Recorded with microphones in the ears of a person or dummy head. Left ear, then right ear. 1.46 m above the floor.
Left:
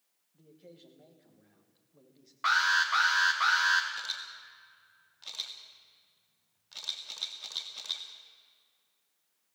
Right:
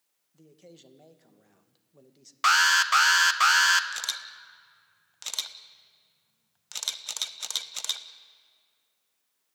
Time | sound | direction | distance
0.3 | a man speaking | 70° right (ahead or behind) | 2.0 m
2.4 | an alarm | 60° right (ahead or behind) | 1.3 m
3.9 | a camera shutter | 60° right (ahead or behind) | 1.4 m